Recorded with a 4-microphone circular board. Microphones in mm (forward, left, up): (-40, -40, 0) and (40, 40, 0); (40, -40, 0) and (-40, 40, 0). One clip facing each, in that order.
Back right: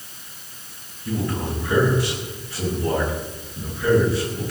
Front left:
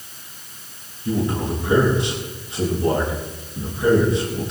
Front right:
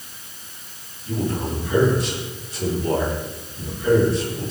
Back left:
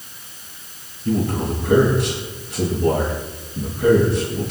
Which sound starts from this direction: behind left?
A man speaking, at 1.1 s.